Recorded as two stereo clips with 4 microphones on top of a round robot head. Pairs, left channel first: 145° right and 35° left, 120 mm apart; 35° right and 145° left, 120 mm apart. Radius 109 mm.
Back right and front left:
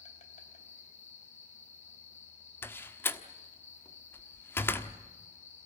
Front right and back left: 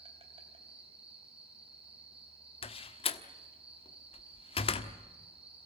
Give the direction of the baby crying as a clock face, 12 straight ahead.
I don't hear a baby crying.